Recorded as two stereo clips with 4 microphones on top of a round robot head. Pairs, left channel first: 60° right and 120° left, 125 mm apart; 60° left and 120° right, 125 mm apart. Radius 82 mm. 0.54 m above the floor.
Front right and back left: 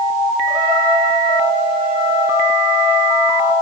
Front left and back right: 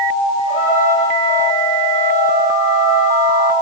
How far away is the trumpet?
About 3 m.